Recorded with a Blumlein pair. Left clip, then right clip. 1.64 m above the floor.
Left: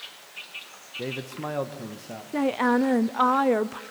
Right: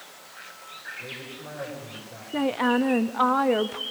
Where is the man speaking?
40° left, 1.9 m; by 2.2 s 45° left, 3 m.